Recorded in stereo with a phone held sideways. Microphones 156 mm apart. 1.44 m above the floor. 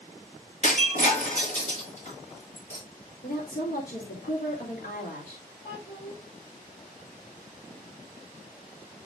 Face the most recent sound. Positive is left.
turn(degrees=50)  # may be behind; listen again after turning